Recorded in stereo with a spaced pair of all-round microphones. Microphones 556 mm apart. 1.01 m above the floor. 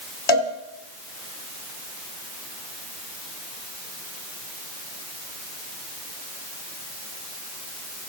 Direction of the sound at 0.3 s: 55° left (ahead or behind).